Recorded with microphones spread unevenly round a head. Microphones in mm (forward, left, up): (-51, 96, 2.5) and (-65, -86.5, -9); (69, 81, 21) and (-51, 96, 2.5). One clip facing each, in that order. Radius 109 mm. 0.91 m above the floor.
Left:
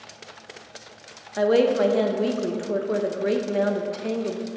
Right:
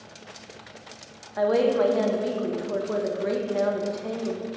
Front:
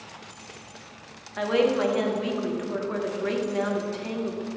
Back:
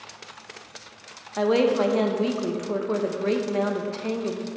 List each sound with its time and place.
1.4 s a woman speaking: 140° left, 0.8 m